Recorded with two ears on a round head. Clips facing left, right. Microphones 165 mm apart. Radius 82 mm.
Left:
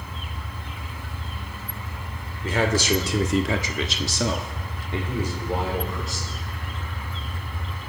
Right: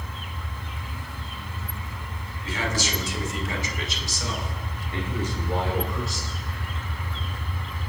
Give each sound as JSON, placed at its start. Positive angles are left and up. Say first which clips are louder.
{"t": 2.4, "sound": "a man speaking", "louder": "left 7 dB", "side_deg": 45, "distance_m": 3.0}